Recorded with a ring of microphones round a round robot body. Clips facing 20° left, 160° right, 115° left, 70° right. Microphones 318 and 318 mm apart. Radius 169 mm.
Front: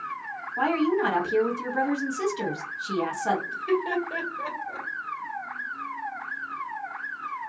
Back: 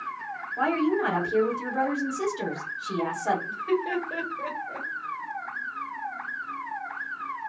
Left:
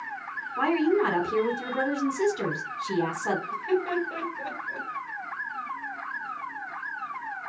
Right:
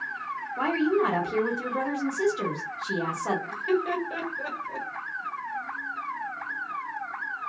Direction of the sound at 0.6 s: 45° left.